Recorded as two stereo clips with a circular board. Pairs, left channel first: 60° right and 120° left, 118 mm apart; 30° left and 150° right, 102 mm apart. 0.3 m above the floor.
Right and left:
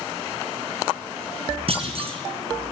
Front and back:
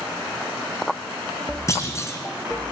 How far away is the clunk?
About 4 m.